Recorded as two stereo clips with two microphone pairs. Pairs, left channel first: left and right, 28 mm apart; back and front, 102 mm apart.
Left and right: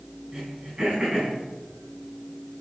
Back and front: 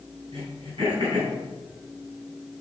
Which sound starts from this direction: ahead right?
Throat clearing, at 0.3 s.